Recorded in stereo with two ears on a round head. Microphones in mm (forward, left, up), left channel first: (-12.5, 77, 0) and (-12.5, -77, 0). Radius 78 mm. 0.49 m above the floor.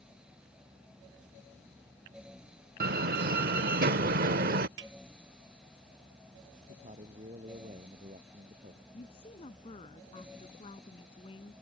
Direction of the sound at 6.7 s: 35° right (ahead or behind).